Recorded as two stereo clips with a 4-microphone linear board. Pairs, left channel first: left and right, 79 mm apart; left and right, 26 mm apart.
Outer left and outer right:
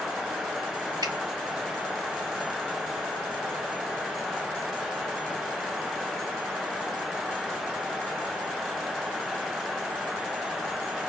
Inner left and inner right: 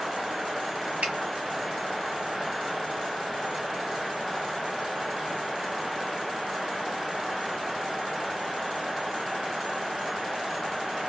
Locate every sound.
1.0 s a finger snap: 55° right (ahead or behind), 1.3 m